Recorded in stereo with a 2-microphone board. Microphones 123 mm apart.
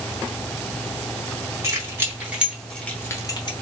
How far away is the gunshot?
I don't hear a gunshot.